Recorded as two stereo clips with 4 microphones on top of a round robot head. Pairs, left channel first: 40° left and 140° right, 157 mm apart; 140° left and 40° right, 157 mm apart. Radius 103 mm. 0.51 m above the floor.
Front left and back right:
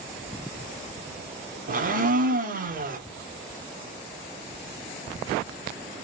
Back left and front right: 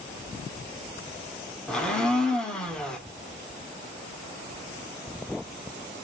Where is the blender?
135° right, 1.5 m.